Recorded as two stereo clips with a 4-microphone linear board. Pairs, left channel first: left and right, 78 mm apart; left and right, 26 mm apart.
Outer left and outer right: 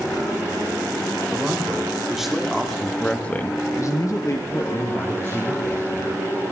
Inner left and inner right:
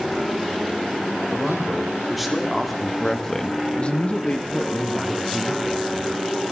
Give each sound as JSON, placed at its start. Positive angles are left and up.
{"t": 1.3, "sound": "a man speaking", "side_deg": -10, "distance_m": 3.5}